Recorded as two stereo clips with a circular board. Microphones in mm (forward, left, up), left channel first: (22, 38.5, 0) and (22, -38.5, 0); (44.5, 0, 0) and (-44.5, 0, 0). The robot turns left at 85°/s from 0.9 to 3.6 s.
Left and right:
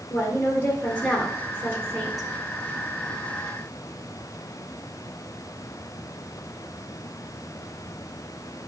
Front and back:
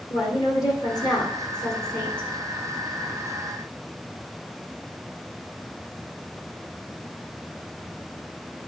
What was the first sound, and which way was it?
A woman speaking, 35° left.